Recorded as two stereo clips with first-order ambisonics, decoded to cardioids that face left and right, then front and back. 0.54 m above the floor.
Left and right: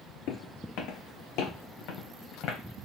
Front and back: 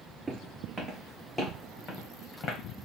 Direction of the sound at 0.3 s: 110° left.